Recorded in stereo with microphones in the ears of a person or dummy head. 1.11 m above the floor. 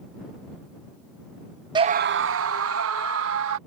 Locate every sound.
1.8 s a scream: 15° right (ahead or behind); by 3.6 s 75° right (ahead or behind)